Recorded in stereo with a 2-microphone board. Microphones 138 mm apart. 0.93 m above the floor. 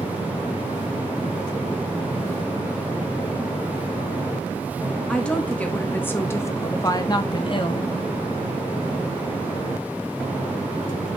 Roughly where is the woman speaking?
Centre.